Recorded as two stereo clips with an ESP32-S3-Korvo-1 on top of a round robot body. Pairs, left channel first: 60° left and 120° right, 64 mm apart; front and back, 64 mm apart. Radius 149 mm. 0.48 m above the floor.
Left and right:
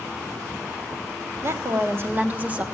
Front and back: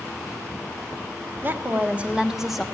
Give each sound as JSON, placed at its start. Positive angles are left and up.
{"t": 1.4, "sound": "a woman speaking", "azimuth_deg": -135, "distance_m": 1.5}